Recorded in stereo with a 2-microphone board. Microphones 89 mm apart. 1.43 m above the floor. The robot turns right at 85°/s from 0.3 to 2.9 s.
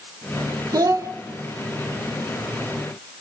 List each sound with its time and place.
0.7 s a child speaking: 85° right, 0.7 m; by 1.1 s 55° right, 0.7 m